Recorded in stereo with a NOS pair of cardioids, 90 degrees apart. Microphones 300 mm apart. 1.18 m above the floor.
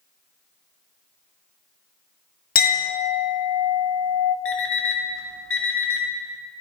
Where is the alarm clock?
45° left, 1.5 m.